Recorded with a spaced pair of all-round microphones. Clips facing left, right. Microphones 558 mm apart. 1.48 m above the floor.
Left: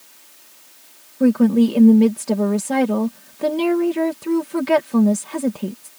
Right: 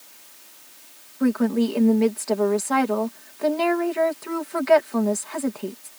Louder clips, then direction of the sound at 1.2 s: Left 6 dB; 55° left (ahead or behind).